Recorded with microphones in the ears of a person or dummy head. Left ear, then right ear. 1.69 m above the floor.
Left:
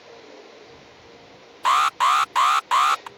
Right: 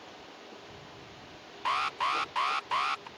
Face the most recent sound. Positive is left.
turn(degrees=45)  # may be behind; listen again after turning